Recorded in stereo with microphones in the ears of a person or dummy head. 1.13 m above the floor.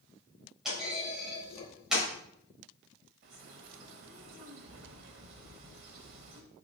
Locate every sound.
0.7 s a clunk: 5° right (ahead or behind), 4.5 m
3.2 s a bird: 55° right (ahead or behind), 1.3 m